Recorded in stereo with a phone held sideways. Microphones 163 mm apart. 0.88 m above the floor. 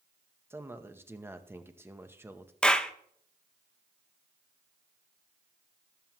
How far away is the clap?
About 0.7 m.